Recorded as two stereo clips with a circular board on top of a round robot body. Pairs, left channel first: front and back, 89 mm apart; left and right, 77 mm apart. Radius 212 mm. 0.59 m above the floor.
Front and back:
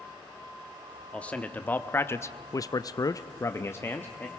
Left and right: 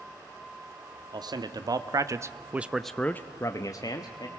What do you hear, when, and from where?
1.1 s a man speaking: 75° right, 1.5 m; by 4.3 s 65° left, 1.3 m